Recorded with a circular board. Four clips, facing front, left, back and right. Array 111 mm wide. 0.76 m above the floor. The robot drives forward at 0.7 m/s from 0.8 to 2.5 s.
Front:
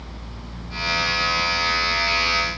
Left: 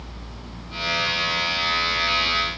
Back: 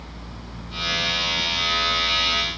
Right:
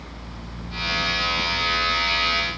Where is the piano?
No piano in this recording.